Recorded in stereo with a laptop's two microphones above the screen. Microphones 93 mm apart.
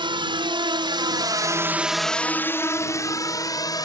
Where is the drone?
60° right (ahead or behind); by 3.8 s 40° left (ahead or behind).